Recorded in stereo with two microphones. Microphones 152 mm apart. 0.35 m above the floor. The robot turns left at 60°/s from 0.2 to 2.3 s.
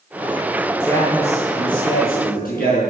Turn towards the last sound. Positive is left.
turn(degrees=75)